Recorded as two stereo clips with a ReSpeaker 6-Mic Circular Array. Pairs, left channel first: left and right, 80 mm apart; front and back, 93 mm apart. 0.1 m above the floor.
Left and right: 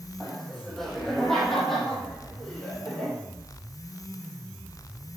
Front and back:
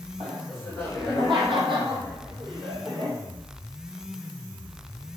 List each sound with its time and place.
0.2 s laughter: straight behind, 4.5 m; by 3.2 s 165° left, 3 m